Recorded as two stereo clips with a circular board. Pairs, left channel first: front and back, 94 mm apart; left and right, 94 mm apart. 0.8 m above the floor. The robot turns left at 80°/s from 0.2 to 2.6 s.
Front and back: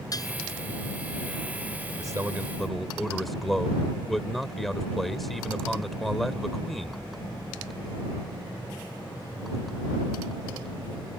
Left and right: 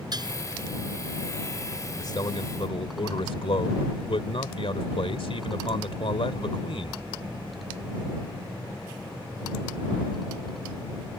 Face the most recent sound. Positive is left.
turn(degrees=90)